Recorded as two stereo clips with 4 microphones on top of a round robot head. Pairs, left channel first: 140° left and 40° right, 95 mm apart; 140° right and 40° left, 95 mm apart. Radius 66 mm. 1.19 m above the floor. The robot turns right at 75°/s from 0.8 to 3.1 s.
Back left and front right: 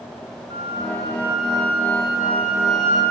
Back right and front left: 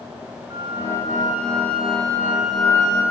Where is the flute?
10° right, 1.2 m; by 3.0 s 160° left, 1.2 m.